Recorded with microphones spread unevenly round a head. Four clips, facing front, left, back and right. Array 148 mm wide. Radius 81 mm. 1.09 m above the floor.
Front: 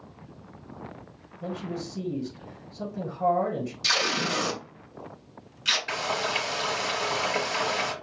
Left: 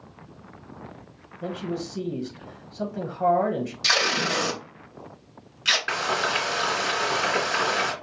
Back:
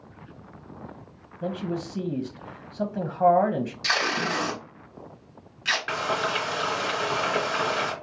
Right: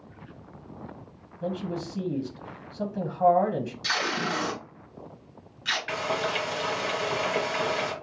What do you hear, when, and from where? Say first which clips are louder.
1.4 s a man speaking: left 1 dB, back 4 dB; 160° left, 1.0 m
3.8 s tape being pulled: left 5 dB, back 1 dB; 100° left, 2.0 m
5.9 s frying: left 2 dB, back 2 dB; 125° left, 2.5 m